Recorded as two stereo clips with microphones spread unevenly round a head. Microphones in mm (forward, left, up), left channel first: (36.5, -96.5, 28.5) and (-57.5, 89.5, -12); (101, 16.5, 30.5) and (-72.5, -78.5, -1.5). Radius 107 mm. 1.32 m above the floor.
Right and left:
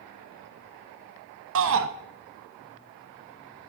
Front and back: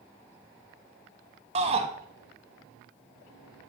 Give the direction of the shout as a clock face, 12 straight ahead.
7 o'clock.